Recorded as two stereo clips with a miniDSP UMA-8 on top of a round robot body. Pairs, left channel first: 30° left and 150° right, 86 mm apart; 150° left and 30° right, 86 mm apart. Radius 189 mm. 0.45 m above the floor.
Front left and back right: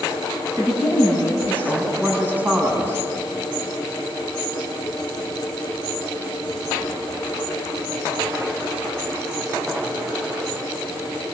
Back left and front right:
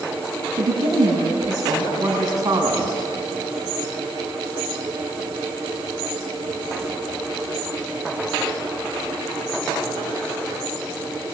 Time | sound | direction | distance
0.6 | a woman speaking | 75° right | 6 m